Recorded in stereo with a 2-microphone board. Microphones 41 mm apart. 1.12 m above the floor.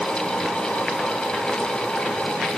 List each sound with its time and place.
Only background noise.